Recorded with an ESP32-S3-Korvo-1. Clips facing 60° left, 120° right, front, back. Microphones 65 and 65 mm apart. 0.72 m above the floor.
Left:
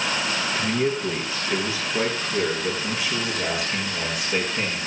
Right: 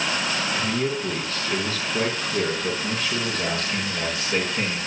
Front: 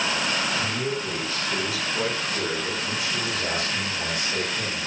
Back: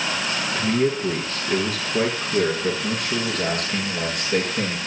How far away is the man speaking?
About 8 m.